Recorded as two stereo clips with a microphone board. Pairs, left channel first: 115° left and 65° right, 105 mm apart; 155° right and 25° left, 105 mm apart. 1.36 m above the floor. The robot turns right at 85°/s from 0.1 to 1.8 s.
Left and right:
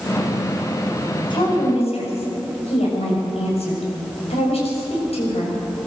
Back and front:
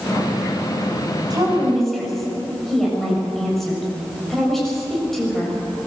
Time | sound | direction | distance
1.3 | a woman speaking | 75° left | 7 m